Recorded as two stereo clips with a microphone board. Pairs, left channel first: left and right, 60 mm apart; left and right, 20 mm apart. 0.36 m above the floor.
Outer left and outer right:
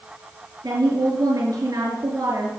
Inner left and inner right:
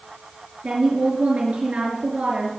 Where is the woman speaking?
80° right, 5 m.